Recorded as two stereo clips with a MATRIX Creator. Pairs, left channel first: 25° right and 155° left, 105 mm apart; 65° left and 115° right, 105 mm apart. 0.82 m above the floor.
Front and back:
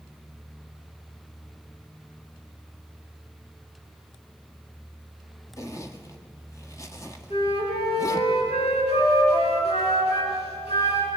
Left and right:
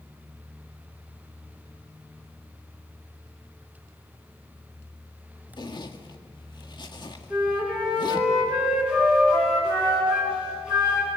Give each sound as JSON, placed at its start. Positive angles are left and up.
{"t": 5.6, "sound": "a zipper", "azimuth_deg": 35, "distance_m": 1.8}
{"t": 7.3, "sound": "a flute", "azimuth_deg": -30, "distance_m": 9.0}